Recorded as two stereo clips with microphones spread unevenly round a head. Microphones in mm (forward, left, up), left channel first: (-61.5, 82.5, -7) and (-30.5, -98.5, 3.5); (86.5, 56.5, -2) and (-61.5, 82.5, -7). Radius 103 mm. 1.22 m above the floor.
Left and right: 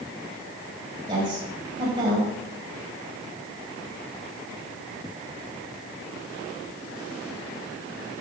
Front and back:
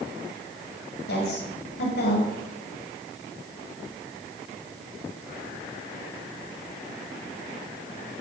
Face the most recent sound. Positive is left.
turn(degrees=-10)